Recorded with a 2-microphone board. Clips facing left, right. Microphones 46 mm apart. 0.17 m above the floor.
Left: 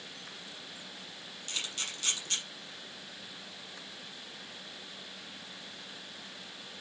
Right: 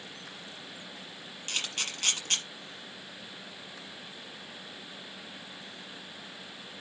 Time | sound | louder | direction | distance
1.5 | a camera shutter | right 4 dB | 45° right (ahead or behind) | 5 m